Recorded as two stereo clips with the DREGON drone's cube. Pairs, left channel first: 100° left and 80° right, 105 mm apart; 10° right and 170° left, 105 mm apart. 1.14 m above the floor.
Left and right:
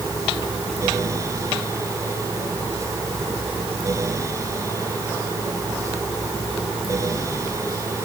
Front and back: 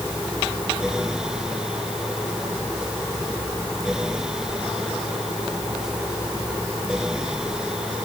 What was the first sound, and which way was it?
Only background noise.